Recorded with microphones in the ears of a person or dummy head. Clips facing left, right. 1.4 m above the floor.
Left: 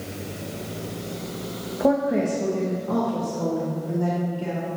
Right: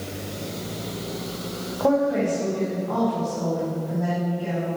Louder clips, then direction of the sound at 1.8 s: Even; 15° left (ahead or behind).